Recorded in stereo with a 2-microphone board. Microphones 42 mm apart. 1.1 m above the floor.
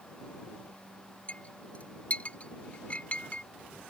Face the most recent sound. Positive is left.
turn(degrees=30)  # may be behind; listen again after turning